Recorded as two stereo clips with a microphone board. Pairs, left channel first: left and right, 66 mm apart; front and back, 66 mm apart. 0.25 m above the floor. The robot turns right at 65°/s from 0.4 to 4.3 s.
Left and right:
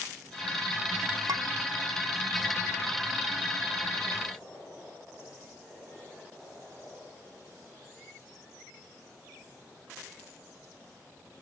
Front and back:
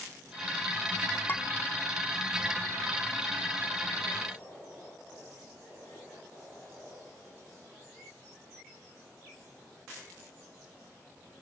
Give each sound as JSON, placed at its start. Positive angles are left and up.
{"t": 1.3, "sound": "dishes clattering", "azimuth_deg": -60}